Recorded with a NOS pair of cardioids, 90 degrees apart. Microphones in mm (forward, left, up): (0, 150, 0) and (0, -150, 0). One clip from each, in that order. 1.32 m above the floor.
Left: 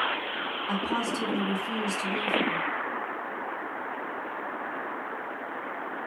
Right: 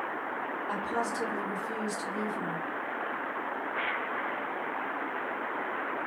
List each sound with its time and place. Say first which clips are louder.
0.7 s a woman speaking: left 2 dB; 55° left, 1.7 m